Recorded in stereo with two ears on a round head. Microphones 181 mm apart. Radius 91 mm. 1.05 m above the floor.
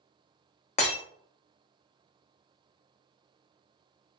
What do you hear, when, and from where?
0.8 s breaking glass: 35° left (ahead or behind), 0.6 m